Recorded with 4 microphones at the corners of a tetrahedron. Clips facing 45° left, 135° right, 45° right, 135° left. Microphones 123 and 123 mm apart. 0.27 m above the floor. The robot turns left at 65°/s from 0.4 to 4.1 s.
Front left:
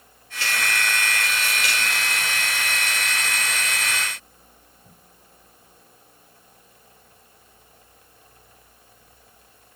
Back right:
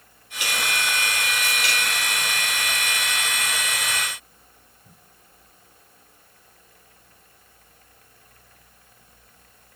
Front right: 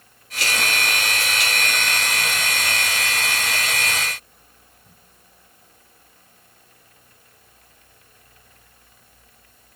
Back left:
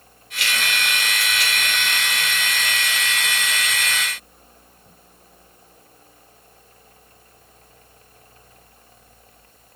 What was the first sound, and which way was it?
Only background noise.